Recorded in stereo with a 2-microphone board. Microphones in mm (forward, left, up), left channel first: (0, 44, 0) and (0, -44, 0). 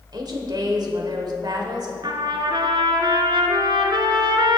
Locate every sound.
0.1 s a woman speaking: 55° right (ahead or behind), 1.3 m
2.0 s a trumpet: 65° right (ahead or behind), 0.9 m